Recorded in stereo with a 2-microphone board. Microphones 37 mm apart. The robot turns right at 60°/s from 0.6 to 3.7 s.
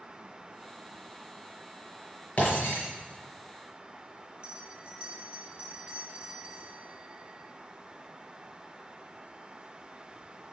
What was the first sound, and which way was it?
Breaking glass, 45° left (ahead or behind).